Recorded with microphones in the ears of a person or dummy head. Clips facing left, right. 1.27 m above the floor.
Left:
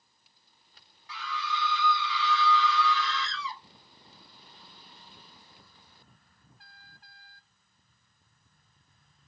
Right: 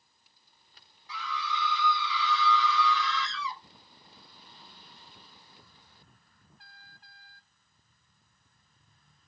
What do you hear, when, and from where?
1.1 s a scream: 50° left (ahead or behind), 1.2 m